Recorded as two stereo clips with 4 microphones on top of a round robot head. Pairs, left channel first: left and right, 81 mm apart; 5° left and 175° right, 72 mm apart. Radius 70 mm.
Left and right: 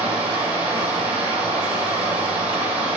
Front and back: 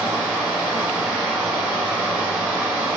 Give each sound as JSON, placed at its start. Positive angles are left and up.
{"t": 0.0, "sound": "running water", "azimuth_deg": -95, "distance_m": 1.9}